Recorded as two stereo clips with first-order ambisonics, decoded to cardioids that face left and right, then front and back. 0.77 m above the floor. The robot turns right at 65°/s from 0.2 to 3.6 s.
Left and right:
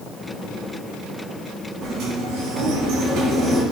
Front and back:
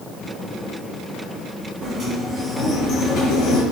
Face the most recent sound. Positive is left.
turn(degrees=-15)